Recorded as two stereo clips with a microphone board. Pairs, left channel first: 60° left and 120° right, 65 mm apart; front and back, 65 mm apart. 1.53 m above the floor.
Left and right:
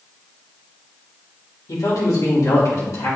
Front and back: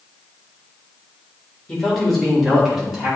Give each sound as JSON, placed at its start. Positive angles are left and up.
{"t": 1.7, "sound": "a man speaking", "azimuth_deg": 80, "distance_m": 2.5}